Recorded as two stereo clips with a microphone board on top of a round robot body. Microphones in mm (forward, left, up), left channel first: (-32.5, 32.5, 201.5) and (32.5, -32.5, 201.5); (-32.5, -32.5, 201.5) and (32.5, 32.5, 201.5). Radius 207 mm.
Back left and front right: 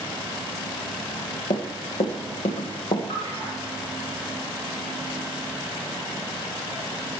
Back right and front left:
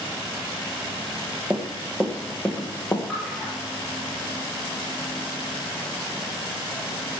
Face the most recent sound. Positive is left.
turn(degrees=145)